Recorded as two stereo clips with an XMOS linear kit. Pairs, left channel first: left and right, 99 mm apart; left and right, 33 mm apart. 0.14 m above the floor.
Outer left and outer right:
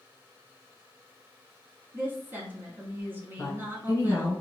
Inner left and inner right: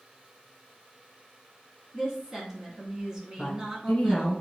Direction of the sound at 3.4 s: 30° left (ahead or behind).